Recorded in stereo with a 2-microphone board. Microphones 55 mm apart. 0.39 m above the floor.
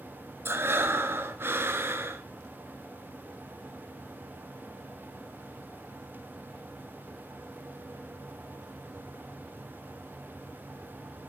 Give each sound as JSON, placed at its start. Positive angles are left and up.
{"t": 0.5, "sound": "breathing", "side_deg": -45, "distance_m": 1.8}